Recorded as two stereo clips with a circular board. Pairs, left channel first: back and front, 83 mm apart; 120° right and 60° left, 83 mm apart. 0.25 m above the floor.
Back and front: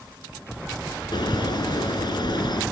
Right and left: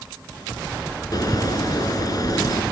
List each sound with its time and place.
1.1 s a bird: 160° right, 1.4 m